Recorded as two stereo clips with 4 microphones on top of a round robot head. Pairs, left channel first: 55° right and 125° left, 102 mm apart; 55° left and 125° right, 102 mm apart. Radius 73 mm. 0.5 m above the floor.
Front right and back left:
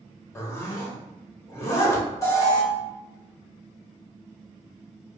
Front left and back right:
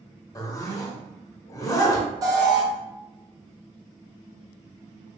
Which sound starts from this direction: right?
An alarm, at 2.2 s.